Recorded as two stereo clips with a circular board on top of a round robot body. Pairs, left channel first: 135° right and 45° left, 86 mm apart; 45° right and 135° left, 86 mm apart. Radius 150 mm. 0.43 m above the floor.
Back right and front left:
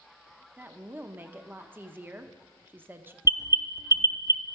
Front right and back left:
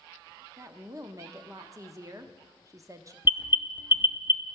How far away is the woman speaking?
About 0.9 m.